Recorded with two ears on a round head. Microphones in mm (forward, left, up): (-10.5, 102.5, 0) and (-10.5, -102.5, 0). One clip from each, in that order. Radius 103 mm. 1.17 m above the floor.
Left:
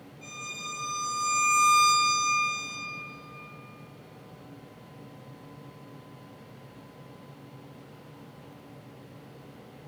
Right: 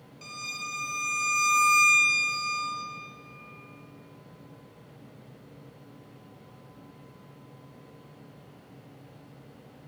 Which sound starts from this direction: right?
A violin, at 0.2 s.